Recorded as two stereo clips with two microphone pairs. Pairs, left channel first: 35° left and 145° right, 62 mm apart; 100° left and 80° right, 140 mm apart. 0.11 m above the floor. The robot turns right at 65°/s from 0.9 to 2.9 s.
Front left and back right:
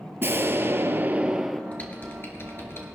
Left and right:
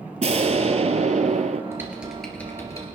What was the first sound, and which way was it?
An explosion, 105° right.